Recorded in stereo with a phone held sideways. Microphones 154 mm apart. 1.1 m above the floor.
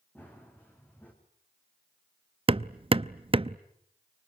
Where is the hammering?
35° right (ahead or behind), 0.5 m.